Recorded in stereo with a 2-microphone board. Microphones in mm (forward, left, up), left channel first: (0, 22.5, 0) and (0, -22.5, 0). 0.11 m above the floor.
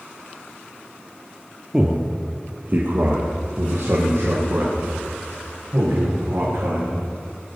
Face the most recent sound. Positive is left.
turn(degrees=-75)  # may be behind; listen again after turning